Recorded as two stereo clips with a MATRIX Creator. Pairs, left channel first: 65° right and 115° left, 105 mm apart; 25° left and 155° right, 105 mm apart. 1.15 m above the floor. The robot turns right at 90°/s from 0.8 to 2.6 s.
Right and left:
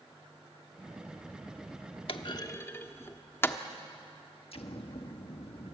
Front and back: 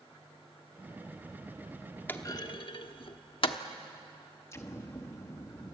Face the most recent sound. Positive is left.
turn(degrees=-40)